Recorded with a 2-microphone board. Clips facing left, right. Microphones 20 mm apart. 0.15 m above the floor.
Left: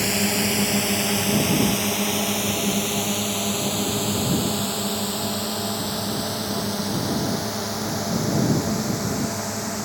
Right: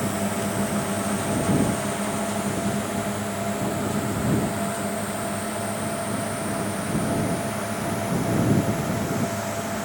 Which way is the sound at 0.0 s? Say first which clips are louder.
Left 4 dB; 65° left (ahead or behind).